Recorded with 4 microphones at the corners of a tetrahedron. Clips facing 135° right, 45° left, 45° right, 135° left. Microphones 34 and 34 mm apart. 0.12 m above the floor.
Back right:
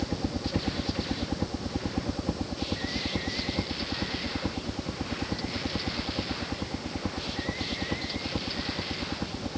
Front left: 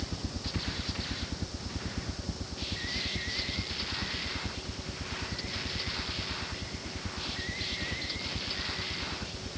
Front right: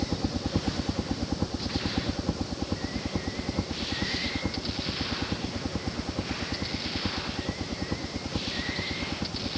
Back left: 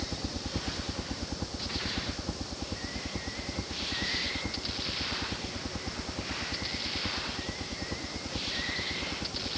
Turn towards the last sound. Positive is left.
turn(degrees=-125)